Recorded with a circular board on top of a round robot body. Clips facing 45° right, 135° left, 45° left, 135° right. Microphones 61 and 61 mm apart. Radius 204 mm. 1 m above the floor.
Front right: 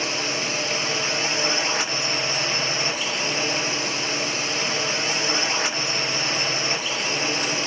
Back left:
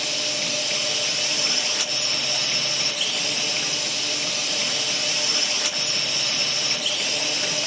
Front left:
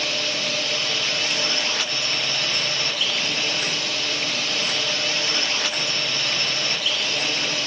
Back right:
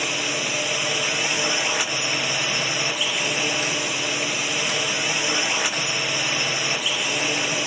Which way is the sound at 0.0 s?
70° right.